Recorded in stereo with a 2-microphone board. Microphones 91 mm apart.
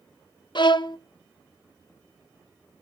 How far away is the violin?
About 0.6 m.